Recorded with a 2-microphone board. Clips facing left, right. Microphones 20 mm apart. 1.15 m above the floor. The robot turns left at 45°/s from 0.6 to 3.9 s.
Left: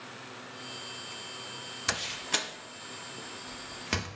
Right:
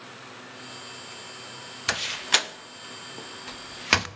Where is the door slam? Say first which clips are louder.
Right 7 dB; 20° right (ahead or behind), 0.5 m; by 4.1 s 50° right (ahead or behind), 0.5 m.